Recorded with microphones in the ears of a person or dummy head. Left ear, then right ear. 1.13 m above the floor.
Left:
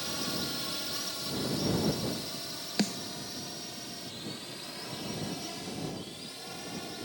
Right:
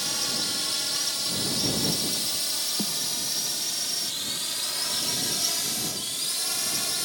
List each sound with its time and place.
0.0 s a drone: 25° right (ahead or behind); by 7.0 s 60° right (ahead or behind)
2.8 s a snare drum: 65° left (ahead or behind)